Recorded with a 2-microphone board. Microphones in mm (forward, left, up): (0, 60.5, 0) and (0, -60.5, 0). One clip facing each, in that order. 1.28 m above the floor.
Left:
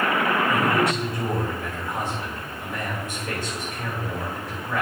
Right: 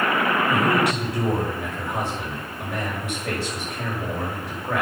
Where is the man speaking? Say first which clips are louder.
Right 1 dB; 75° right (ahead or behind), 6 m.